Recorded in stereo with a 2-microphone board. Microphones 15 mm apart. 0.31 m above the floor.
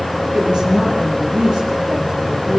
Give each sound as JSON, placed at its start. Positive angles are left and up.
{"t": 0.3, "sound": "a woman speaking", "side_deg": -75, "distance_m": 10.0}